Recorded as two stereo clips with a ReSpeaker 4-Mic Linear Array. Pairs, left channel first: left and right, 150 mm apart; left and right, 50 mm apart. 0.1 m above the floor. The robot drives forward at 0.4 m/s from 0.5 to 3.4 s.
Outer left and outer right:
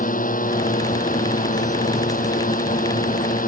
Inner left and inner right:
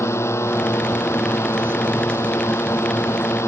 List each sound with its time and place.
0.0 s a drone: 65° left (ahead or behind)